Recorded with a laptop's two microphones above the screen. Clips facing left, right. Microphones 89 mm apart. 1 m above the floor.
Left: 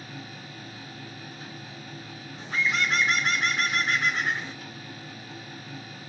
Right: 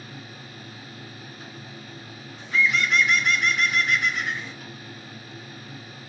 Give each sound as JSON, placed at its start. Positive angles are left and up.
{"t": 0.0, "sound": "a machine running", "side_deg": -50, "distance_m": 1.9}
{"t": 2.4, "sound": "a bird", "side_deg": 35, "distance_m": 0.6}